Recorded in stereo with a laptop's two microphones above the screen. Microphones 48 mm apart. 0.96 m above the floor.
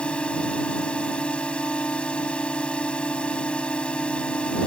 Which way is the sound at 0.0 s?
25° left (ahead or behind).